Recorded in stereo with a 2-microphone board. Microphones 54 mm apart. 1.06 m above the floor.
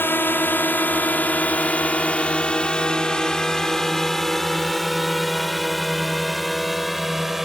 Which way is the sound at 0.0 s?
45° left (ahead or behind).